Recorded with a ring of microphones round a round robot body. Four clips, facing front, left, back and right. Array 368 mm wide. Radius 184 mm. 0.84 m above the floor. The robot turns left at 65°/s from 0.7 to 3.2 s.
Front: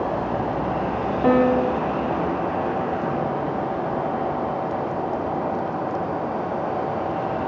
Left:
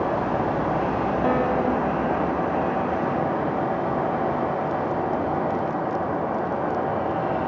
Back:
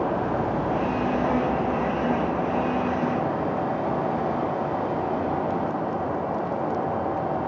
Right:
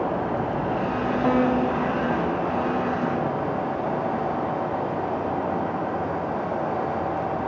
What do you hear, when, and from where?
1.2 s a piano: 5° left, 2 m; by 2.0 s 45° right, 2 m